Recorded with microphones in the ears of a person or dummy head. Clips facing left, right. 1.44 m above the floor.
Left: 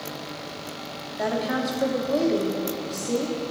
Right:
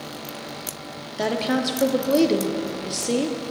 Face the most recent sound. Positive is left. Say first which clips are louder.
# right 3 dB
turn(degrees=-40)  # may be behind; listen again after turning